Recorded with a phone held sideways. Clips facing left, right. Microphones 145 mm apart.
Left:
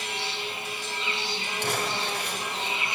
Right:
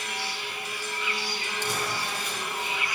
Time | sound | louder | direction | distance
0.0 | an insect | left 1 dB | 25° left (ahead or behind) | 2.5 m
1.6 | crumpling | left 2 dB | 70° left (ahead or behind) | 4 m